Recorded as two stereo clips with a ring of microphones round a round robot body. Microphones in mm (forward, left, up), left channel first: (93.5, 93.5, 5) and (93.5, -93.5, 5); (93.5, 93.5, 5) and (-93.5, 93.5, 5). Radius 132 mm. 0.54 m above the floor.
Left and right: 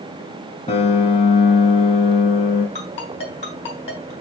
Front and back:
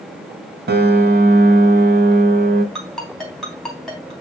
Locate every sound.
0.7 s a piano: 150° left, 0.7 m
2.8 s a ringtone: 90° left, 3.5 m